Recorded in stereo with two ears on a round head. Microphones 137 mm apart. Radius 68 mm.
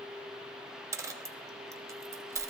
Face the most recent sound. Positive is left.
turn(degrees=-20)  # may be behind; listen again after turning